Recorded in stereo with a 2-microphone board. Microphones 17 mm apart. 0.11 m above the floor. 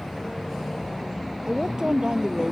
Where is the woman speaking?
40° right (ahead or behind); by 2.5 s 50° right (ahead or behind).